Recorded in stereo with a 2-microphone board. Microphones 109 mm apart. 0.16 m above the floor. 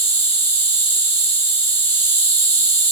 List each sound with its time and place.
0.0 s an insect: 15° left (ahead or behind), 1.3 m